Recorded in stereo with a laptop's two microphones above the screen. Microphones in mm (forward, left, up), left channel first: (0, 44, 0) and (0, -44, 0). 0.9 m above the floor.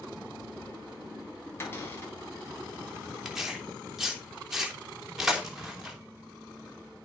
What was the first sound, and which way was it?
A cupboard door, 30° left (ahead or behind).